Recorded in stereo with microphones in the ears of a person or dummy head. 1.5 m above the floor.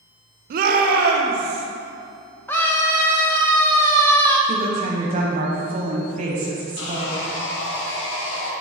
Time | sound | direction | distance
0.5 | a shout | 55° right (ahead or behind) | 0.6 m
2.5 | a scream | 10° left (ahead or behind) | 0.8 m
4.5 | a woman speaking | 45° right (ahead or behind) | 1.3 m
6.8 | sawing | 70° left (ahead or behind) | 1.3 m